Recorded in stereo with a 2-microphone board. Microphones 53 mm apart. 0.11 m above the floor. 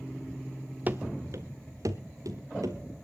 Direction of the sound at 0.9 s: 30° right (ahead or behind).